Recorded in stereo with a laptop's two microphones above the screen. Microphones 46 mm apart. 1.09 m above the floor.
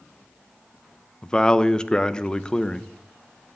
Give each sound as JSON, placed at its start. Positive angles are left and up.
{"t": 1.2, "sound": "a man speaking", "side_deg": 15, "distance_m": 0.8}